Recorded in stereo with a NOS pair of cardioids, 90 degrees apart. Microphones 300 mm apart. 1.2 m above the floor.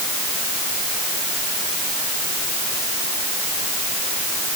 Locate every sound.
Only background noise.